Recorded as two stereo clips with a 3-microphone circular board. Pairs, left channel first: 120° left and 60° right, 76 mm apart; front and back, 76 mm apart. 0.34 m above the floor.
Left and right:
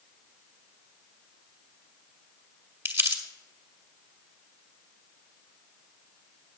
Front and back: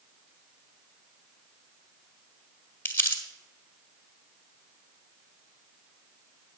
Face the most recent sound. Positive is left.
turn(degrees=-40)